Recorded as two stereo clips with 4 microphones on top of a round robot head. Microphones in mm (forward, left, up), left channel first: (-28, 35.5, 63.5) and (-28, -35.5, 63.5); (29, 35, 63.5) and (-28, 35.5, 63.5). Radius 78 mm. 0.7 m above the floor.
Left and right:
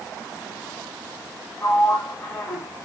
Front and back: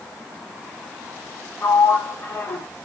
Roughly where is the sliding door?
Ahead left.